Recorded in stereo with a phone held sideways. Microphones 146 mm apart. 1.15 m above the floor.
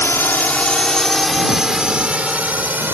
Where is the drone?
15° left (ahead or behind); by 2.9 s 15° right (ahead or behind).